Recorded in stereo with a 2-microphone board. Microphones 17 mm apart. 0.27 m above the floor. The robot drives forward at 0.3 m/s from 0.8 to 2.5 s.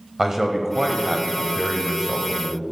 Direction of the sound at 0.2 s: 20° right (ahead or behind).